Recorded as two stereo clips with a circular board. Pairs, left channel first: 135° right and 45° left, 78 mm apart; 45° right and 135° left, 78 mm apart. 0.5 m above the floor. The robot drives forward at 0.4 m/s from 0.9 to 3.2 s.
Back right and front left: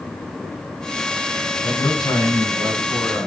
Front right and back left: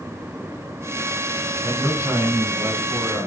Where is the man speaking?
165° right, 5.5 m.